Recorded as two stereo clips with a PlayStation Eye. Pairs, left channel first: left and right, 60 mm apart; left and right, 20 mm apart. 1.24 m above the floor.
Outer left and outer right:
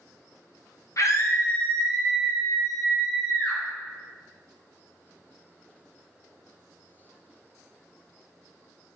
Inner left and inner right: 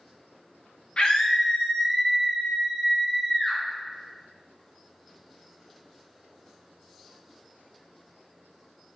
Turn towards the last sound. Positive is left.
turn(degrees=-25)  # may be behind; listen again after turning